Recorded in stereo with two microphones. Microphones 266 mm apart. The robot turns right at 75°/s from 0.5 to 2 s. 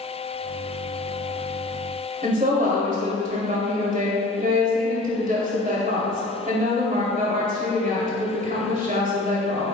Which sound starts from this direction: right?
A woman speaking, at 2.2 s.